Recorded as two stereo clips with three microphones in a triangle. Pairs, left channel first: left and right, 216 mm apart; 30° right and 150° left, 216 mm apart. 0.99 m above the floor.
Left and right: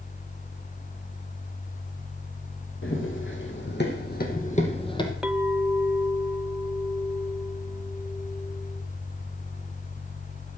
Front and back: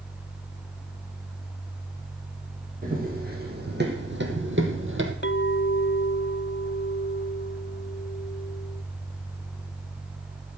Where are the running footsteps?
105° left, 3.5 m; by 5.1 s 160° left, 2 m.